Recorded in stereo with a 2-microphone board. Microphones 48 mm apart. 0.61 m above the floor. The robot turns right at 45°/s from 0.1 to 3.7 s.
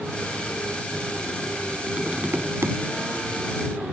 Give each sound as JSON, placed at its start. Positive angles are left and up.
{"t": 1.9, "sound": "tapping", "azimuth_deg": -160}